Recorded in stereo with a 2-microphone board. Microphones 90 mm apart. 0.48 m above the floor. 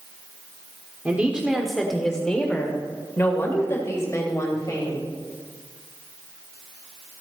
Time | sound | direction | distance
1.1 | a woman speaking | 15° right (ahead or behind) | 1.1 m